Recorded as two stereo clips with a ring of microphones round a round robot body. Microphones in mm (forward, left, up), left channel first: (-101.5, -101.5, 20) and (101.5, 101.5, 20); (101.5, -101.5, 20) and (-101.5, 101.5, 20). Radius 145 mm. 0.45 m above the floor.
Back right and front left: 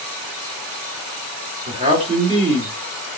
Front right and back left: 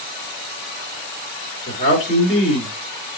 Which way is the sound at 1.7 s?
5° right.